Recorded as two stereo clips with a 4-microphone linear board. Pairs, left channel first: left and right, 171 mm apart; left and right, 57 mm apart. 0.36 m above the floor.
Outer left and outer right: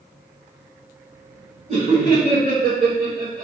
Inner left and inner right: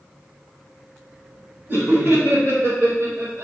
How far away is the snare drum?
No snare drum in this recording.